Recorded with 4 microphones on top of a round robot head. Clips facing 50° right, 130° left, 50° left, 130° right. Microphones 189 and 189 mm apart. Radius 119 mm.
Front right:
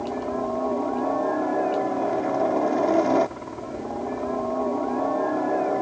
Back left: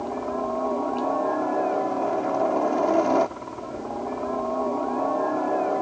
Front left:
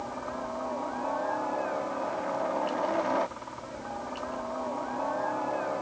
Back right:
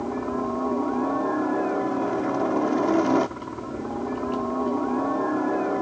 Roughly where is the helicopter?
Behind right.